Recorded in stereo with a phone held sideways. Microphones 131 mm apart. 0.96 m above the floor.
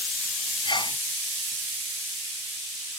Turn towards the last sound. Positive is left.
turn(degrees=40)  # may be behind; listen again after turning